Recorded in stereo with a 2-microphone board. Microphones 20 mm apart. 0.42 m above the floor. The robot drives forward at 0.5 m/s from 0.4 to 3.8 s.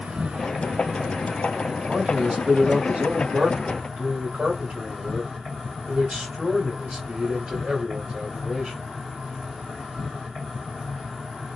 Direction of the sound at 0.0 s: 60° right (ahead or behind).